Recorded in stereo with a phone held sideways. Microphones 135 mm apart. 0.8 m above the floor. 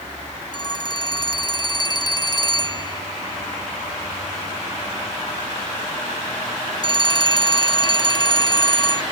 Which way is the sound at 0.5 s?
30° left (ahead or behind).